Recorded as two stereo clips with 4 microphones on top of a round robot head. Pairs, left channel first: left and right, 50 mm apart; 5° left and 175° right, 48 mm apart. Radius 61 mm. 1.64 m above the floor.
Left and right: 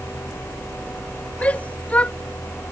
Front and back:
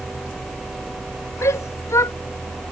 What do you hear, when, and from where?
1.4 s a shout: 30° left